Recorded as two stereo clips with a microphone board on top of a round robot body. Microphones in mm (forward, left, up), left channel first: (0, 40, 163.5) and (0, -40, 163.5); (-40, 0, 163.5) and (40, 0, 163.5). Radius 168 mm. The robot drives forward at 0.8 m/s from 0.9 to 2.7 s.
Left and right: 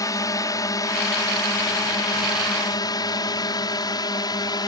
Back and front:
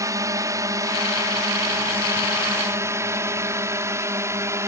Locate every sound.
0.0 s a drone: 45° left; by 4.7 s 55° left